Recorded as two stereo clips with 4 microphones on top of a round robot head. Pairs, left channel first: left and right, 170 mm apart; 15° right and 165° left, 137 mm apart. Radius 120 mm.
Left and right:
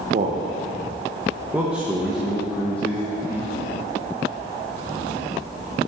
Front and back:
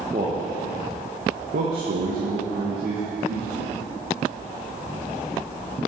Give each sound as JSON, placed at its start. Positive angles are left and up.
{"t": 0.1, "sound": "a man speaking", "azimuth_deg": -135, "distance_m": 1.0}